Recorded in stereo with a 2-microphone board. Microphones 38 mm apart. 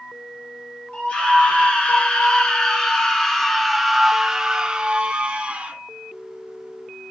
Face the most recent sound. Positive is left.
turn(degrees=-35)  # may be behind; listen again after turning